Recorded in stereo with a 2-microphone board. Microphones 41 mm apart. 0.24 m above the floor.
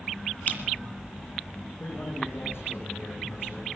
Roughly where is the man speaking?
Left.